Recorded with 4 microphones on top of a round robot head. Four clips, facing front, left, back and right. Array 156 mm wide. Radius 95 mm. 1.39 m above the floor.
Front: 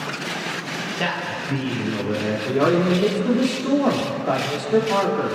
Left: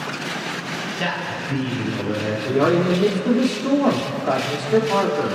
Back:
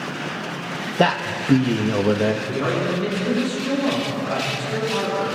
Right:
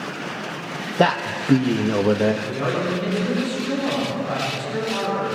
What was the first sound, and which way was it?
A man speaking, 130° right.